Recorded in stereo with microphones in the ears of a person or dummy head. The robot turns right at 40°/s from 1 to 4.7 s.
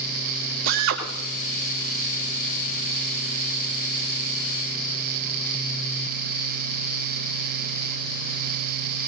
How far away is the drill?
About 3 m.